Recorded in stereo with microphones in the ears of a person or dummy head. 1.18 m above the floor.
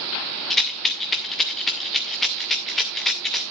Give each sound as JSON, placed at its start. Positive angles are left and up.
{"t": 0.5, "sound": "a rattle", "side_deg": 5, "distance_m": 0.6}